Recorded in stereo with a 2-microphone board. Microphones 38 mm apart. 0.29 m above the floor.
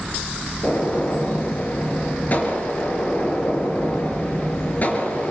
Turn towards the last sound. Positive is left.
turn(degrees=45)  # may be behind; listen again after turning